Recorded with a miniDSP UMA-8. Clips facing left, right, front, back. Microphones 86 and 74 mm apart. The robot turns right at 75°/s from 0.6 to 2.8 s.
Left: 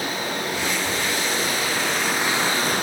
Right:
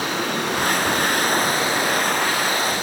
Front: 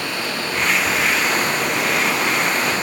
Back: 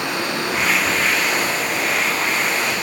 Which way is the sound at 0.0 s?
110° right.